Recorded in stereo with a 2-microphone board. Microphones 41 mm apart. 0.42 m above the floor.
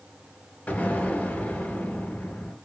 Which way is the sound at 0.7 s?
35° left (ahead or behind).